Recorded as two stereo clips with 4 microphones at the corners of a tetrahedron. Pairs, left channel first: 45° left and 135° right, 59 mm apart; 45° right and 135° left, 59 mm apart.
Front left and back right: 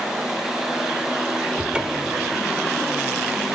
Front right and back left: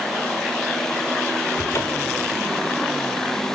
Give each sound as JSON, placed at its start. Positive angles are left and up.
{"t": 1.6, "sound": "a cupboard door", "azimuth_deg": -60, "distance_m": 1.1}